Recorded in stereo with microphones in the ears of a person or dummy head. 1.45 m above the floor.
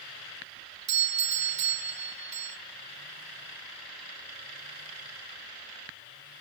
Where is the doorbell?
40° right (ahead or behind), 0.7 m.